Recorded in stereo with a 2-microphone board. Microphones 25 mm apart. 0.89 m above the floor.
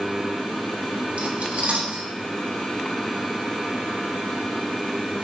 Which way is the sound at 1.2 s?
65° right (ahead or behind).